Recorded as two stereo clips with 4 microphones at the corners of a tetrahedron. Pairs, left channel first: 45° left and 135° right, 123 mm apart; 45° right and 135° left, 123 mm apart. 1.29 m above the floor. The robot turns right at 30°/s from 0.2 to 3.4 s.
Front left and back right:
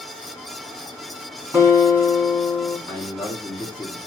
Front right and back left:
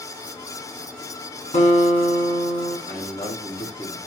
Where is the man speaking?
35° right, 3 m; by 4.0 s 15° right, 3 m.